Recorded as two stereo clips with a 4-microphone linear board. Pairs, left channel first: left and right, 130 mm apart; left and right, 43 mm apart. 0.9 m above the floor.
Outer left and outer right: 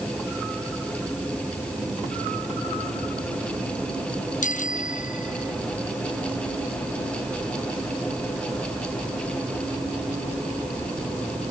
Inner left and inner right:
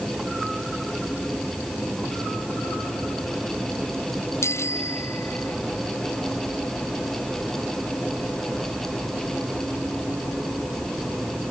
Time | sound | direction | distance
4.4 | a bicycle bell | 80° left | ?